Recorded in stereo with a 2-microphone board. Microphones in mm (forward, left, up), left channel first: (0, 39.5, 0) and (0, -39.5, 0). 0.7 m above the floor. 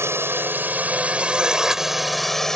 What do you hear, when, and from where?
0.0 s a drone: 35° right (ahead or behind); by 2.6 s 5° left (ahead or behind)